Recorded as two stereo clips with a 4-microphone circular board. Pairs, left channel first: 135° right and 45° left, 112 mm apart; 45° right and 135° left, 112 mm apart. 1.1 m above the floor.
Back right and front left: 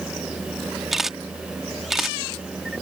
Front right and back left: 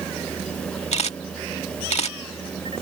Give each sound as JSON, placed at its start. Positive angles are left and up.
{"t": 0.9, "sound": "a camera shutter", "azimuth_deg": -40}